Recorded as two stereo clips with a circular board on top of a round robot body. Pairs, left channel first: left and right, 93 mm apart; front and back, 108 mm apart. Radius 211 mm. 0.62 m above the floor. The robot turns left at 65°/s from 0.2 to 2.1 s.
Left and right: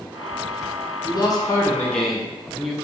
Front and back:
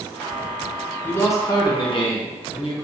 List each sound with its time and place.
1.0 s a man speaking: 70° left, 1.3 m; by 2.7 s 5° left, 1.3 m